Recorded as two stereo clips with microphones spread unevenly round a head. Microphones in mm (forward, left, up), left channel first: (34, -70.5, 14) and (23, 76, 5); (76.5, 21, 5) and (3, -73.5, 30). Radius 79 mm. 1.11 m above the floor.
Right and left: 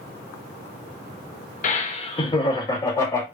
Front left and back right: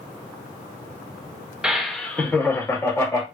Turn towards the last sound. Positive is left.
turn(degrees=-15)